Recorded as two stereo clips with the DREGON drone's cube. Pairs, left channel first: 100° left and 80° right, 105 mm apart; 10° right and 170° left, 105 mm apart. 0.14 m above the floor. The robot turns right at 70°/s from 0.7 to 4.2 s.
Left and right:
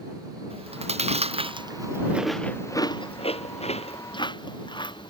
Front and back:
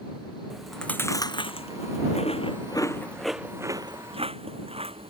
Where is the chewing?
100° right; by 5.1 s 145° left.